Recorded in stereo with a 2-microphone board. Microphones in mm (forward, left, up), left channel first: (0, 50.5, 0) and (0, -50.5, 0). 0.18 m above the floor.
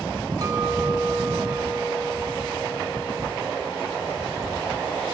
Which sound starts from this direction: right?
A clink, at 0.4 s.